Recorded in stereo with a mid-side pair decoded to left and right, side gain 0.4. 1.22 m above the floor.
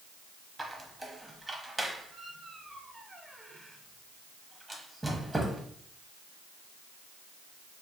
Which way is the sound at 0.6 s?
10° right.